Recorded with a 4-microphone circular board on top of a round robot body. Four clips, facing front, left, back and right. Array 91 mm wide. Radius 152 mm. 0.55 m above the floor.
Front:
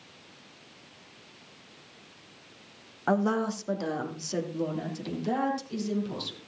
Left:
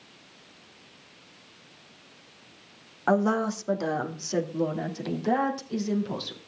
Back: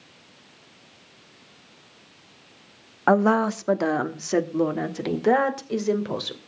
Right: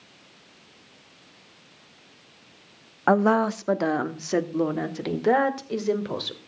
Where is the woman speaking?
140° right, 1.2 m.